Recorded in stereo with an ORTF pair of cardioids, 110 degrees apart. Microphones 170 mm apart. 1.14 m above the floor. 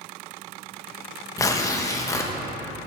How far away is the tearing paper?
About 1.0 m.